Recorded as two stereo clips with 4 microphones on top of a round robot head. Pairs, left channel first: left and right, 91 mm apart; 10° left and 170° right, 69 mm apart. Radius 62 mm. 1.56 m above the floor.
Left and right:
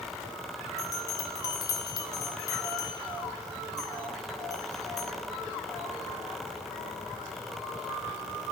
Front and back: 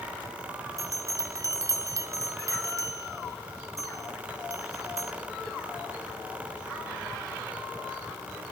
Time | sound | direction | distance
0.8 | a bell | 150° left | 2 m